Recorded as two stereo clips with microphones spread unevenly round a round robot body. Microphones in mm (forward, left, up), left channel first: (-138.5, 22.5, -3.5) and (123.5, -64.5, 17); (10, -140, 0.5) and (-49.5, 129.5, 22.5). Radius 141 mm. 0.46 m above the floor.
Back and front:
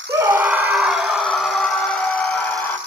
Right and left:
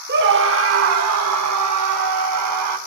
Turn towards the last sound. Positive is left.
turn(degrees=80)